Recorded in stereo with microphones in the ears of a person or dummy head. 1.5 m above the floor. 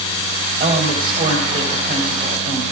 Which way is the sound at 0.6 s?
45° right (ahead or behind).